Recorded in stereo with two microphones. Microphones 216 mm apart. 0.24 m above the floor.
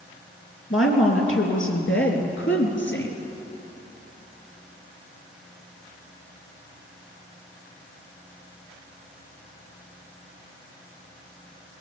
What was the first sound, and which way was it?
A woman speaking, 70° left (ahead or behind).